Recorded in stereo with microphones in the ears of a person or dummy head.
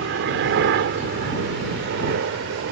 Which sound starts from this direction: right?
A helicopter, at 0.0 s.